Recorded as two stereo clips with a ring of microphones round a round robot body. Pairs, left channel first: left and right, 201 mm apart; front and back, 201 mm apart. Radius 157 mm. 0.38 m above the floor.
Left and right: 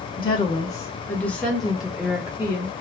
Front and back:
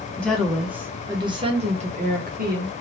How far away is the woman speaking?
About 1.1 m.